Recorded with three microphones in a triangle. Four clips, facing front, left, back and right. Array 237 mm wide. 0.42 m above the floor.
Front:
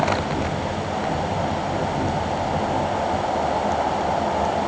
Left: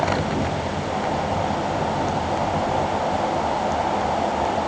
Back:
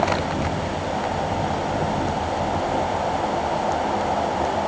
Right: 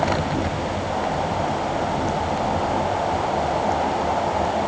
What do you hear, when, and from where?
Only background noise.